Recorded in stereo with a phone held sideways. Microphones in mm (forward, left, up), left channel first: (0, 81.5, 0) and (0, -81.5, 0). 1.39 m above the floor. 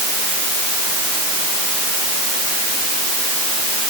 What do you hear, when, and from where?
Only background noise.